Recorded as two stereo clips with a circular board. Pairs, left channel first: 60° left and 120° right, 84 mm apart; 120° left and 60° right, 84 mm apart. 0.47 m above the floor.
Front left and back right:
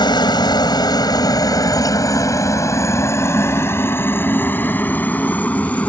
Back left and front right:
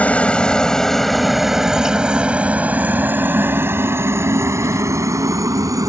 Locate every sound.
0.0 s a helicopter: 50° left; by 5.9 s 15° right